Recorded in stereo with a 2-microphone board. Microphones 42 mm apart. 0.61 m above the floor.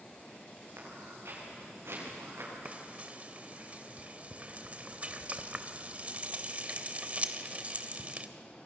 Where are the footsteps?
60° right (ahead or behind), 8.5 m; by 2.5 s 65° right (ahead or behind), 10 m.